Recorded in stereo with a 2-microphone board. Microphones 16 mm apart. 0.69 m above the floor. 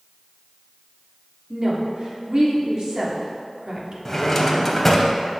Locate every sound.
1.5 s a woman speaking: 45° right (ahead or behind), 1.3 m
4.0 s a drawer: 15° left (ahead or behind), 0.8 m